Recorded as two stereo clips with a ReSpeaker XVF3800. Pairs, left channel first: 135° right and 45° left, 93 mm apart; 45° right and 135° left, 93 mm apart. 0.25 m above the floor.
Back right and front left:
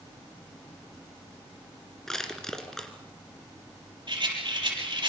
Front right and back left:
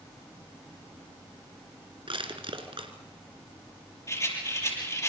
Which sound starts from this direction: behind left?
Crushing, at 2.1 s.